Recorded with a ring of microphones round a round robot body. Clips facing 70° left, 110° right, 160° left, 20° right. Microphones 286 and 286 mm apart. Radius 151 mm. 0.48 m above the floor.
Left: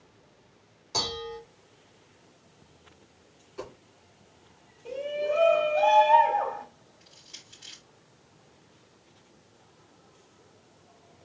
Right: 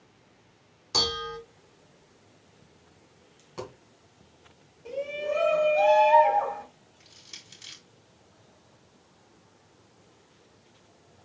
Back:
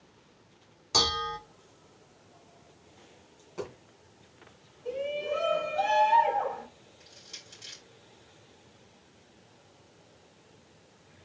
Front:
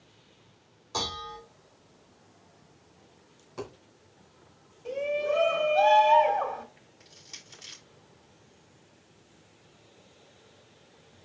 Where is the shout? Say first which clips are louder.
Left 1 dB, front 3 dB; 40° right, 2.5 m.